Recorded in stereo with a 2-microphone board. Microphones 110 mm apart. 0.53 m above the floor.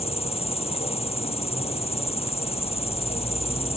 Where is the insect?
60° left (ahead or behind).